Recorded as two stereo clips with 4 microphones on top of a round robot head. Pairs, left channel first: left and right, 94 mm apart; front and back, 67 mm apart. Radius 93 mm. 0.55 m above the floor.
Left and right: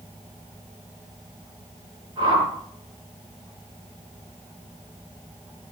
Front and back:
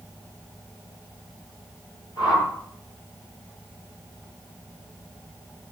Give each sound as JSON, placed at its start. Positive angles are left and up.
{"t": 2.2, "sound": "a whoosh", "azimuth_deg": -35, "distance_m": 5.5}